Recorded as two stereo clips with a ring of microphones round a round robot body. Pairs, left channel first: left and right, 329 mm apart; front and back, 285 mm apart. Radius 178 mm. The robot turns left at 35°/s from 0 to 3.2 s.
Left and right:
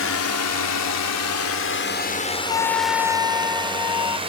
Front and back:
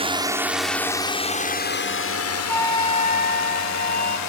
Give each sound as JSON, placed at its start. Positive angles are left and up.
{"t": 0.0, "sound": "a drone", "azimuth_deg": 120}
{"t": 2.5, "sound": "a flute", "azimuth_deg": 85}